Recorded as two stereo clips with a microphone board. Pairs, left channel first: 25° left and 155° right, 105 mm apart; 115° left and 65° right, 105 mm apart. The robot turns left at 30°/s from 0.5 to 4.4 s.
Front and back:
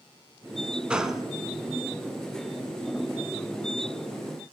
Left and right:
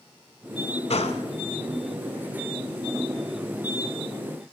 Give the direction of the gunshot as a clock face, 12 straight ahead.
8 o'clock.